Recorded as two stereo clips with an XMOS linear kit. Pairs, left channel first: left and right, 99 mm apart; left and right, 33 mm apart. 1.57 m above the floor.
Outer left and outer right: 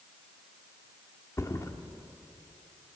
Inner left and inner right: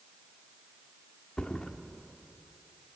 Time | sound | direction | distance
1.4 | a thud | 35° left (ahead or behind) | 1.3 m